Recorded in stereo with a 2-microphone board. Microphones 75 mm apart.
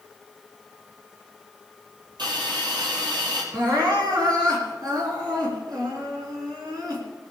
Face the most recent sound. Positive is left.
turn(degrees=-60)  # may be behind; listen again after turning